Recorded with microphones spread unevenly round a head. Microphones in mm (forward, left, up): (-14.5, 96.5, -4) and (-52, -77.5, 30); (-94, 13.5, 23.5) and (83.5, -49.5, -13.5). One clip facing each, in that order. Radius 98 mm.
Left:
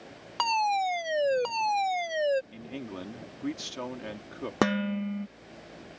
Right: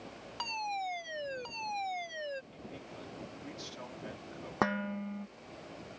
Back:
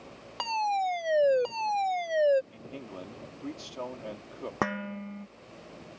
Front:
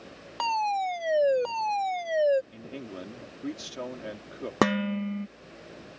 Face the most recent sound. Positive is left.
turn(degrees=20)